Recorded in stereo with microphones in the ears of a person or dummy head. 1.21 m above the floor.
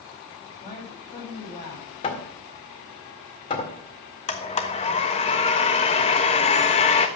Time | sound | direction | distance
0.6 | a man speaking | 30° left (ahead or behind) | 6 m
2.0 | hammering | 25° left (ahead or behind) | 1.8 m
4.3 | a blender | 25° left (ahead or behind) | 1.2 m